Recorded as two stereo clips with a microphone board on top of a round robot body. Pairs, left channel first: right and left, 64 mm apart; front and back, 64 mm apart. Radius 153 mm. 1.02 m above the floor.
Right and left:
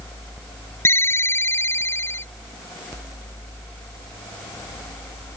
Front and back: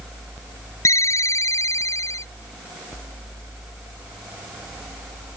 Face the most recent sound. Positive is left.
turn(degrees=-40)